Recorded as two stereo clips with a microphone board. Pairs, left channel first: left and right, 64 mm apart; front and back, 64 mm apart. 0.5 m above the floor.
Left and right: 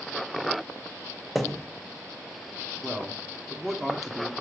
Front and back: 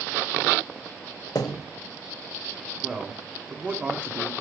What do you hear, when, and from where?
1.4 s a thud: straight ahead, 0.8 m
2.8 s a man speaking: straight behind, 1.0 m